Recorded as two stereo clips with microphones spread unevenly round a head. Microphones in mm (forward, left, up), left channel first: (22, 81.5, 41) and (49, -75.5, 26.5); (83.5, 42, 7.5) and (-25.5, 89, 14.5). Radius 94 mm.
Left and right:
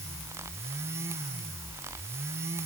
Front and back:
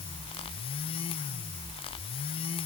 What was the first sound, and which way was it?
Only background noise.